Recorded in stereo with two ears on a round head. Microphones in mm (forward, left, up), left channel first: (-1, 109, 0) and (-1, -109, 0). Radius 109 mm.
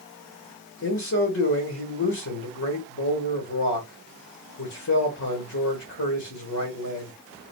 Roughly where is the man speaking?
Left.